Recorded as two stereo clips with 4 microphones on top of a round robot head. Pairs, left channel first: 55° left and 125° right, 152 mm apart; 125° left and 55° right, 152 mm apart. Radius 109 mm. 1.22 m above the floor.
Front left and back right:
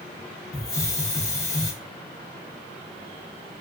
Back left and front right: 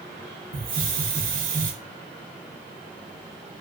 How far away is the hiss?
About 0.6 m.